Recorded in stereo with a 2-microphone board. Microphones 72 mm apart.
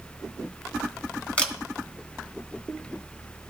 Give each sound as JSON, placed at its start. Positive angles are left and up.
{"t": 1.4, "sound": "a camera shutter", "side_deg": 20, "distance_m": 1.1}